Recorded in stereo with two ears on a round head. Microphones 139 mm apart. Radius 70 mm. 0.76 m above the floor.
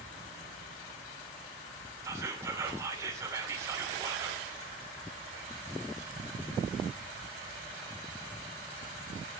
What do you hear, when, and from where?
2.0 s whispering: 20° right (ahead or behind), 2.5 m